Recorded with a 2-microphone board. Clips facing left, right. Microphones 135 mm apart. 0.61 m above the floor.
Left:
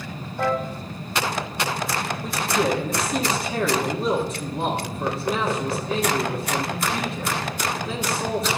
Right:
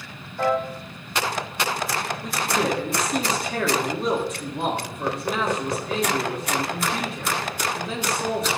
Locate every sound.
0.4 s a piano: 5° left (ahead or behind), 4 m
2.2 s a man speaking: centre (ahead or behind), 1.4 m